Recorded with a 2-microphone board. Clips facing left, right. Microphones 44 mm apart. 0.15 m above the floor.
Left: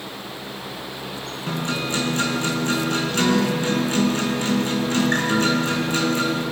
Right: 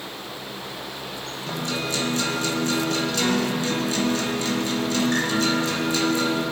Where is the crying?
No crying in this recording.